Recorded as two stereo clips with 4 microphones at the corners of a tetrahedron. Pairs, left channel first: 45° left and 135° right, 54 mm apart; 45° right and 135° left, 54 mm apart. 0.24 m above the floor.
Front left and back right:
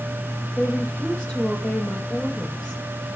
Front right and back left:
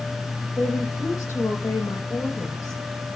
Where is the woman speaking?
25° right, 7 m.